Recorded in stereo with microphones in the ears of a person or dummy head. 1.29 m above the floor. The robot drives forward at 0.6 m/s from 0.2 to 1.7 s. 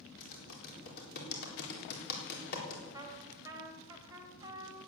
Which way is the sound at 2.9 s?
15° right (ahead or behind).